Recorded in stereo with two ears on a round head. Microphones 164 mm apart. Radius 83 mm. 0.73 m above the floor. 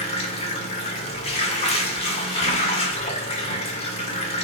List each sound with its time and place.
0.0 s running water: 35° left (ahead or behind), 2.0 m